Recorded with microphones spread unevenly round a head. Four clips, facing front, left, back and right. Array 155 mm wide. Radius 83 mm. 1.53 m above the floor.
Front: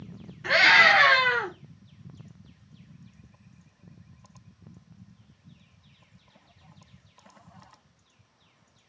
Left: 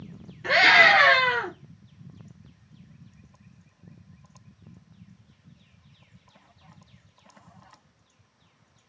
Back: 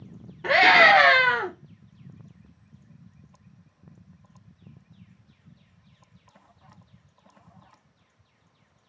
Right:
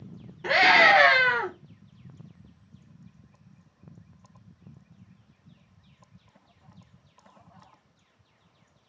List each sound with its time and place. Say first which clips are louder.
0.4 s a scream: even, back 4 dB; 145° right, 2.5 m; by 1.5 s 165° right, 1.9 m